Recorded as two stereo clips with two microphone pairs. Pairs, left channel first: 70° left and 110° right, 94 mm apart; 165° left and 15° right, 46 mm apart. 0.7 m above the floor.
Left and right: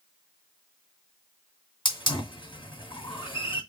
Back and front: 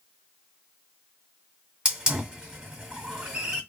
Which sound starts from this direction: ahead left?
A hiss, at 1.9 s.